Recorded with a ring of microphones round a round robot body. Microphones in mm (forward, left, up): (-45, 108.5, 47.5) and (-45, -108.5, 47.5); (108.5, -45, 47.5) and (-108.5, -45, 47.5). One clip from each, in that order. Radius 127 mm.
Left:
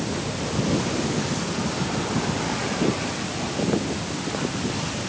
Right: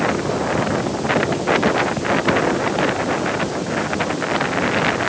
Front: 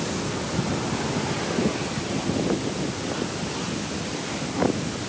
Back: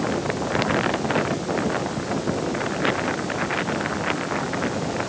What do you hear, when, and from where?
Only background noise.